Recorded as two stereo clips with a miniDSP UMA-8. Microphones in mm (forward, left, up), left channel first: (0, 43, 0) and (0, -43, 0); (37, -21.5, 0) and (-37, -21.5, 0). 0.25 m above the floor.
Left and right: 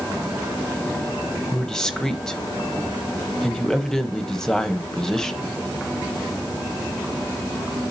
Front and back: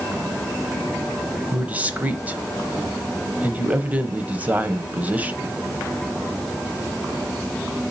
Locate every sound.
1.5 s a man speaking: 160° left, 0.9 m